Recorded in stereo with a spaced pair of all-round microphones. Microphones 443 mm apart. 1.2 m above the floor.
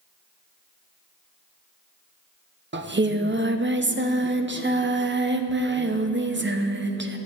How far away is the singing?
About 0.6 m.